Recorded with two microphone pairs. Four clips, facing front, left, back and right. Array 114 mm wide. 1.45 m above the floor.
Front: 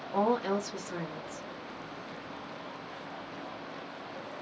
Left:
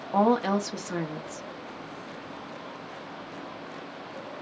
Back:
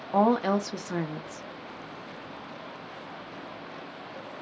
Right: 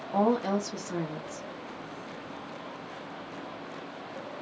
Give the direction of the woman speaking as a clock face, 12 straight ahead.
7 o'clock.